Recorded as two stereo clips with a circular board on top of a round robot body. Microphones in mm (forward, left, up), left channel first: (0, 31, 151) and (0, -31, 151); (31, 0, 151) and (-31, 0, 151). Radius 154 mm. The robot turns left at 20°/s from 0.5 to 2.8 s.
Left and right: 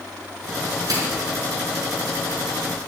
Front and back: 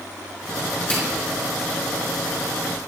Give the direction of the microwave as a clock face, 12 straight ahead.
2 o'clock.